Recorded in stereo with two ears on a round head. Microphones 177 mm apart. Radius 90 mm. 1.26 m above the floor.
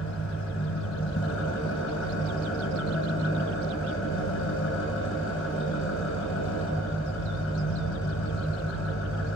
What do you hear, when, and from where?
0.0 s an engine running: 75° left (ahead or behind), 6 m